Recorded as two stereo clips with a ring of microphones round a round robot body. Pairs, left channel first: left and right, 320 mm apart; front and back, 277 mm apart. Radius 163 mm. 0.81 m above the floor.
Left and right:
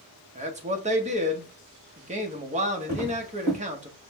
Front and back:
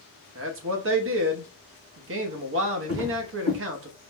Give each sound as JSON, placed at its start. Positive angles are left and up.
{"t": 0.3, "sound": "a man speaking", "azimuth_deg": -155, "distance_m": 0.9}
{"t": 2.9, "sound": "footsteps", "azimuth_deg": -160, "distance_m": 3.0}